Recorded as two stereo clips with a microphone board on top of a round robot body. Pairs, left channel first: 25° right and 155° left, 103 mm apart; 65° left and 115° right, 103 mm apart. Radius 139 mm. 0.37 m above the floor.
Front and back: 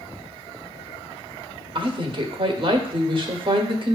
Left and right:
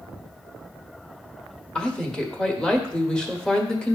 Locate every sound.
1.8 s a woman speaking: 150° left, 1.5 m